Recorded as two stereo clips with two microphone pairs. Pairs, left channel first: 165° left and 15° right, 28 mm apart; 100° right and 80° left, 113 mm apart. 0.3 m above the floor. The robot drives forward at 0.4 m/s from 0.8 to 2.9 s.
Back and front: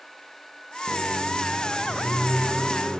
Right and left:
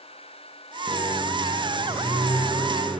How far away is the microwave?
About 1.0 m.